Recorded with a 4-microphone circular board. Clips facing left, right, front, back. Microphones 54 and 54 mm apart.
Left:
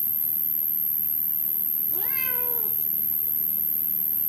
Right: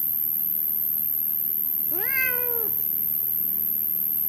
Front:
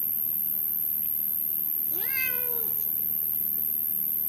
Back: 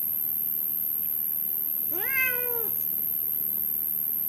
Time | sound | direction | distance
0.0 | an insect | 30° left | 0.9 m
1.9 | a cat meowing | 125° right | 0.6 m